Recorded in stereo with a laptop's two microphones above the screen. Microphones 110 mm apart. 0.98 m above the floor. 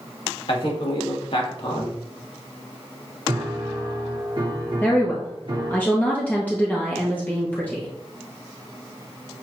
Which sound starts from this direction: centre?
A woman speaking, at 4.8 s.